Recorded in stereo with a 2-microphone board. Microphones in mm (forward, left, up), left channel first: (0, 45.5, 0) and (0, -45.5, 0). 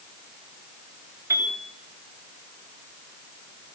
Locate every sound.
1.3 s a piano: 30° right (ahead or behind), 9 m